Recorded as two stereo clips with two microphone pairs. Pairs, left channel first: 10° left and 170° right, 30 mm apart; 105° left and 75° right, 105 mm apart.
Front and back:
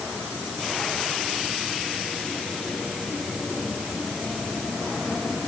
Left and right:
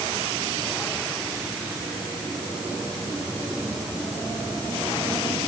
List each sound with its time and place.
Only background noise.